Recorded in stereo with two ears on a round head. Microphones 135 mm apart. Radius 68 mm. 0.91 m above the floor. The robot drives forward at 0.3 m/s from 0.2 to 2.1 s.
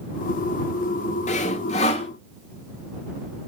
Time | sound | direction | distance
1.3 | sawing | 50° left (ahead or behind) | 1.5 m